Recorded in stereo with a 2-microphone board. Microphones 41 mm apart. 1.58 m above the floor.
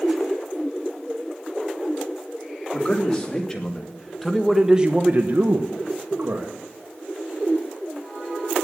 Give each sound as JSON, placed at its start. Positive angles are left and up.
{"t": 2.7, "sound": "a man speaking", "side_deg": 25, "distance_m": 3.5}